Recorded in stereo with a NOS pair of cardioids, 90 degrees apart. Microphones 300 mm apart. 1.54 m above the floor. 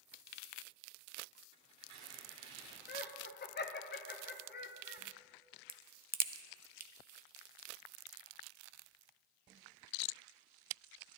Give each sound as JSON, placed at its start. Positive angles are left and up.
{"t": 1.5, "sound": "tearing paper", "azimuth_deg": -55, "distance_m": 3.0}
{"t": 2.9, "sound": "laughter", "azimuth_deg": 35, "distance_m": 1.2}
{"t": 5.7, "sound": "a crack", "azimuth_deg": -30, "distance_m": 0.7}